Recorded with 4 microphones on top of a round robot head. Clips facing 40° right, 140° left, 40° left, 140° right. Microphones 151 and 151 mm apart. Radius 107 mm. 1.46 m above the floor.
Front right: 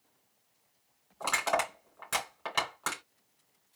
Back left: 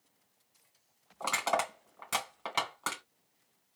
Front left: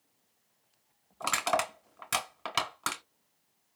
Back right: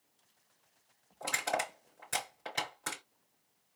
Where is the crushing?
60° left, 3 m.